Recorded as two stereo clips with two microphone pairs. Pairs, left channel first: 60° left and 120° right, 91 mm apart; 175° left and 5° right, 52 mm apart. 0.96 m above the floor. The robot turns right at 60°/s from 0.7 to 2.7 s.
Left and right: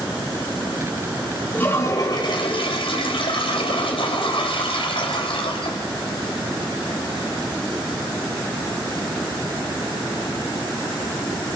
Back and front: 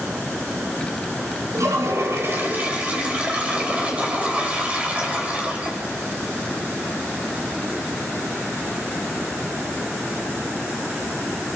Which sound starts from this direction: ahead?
A toilet flushing, at 1.5 s.